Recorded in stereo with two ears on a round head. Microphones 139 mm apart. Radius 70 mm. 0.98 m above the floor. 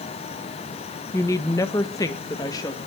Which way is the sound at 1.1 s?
15° left (ahead or behind).